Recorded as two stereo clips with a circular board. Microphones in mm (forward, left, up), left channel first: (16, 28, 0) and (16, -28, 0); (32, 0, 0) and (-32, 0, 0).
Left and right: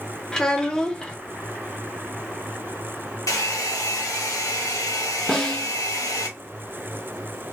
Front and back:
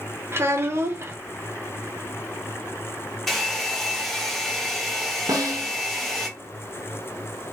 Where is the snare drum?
165° left, 0.8 m.